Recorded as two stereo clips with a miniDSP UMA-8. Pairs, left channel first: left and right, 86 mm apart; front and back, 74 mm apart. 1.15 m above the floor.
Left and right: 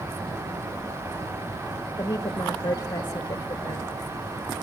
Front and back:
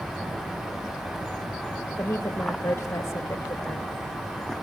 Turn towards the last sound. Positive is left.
turn(degrees=55)